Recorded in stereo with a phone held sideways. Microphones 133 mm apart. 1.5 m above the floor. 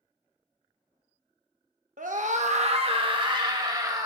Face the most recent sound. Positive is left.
turn(degrees=-30)  # may be behind; listen again after turning